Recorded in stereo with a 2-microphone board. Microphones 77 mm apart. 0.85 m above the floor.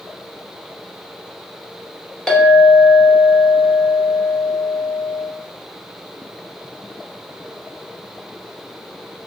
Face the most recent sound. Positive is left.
turn(degrees=10)  # may be behind; listen again after turning